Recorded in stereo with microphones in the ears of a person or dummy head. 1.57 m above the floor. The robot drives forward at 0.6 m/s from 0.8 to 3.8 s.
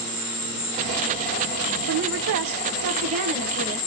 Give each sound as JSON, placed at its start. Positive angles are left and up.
{"t": 0.0, "sound": "an insect", "side_deg": 25, "distance_m": 2.5}
{"t": 1.9, "sound": "a woman speaking", "side_deg": -60, "distance_m": 0.7}